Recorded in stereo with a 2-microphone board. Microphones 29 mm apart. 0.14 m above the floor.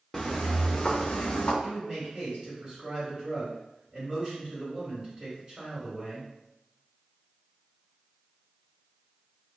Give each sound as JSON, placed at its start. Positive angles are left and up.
{"t": 0.1, "sound": "footsteps", "side_deg": 10, "distance_m": 0.6}
{"t": 1.6, "sound": "a man speaking", "side_deg": -25, "distance_m": 1.5}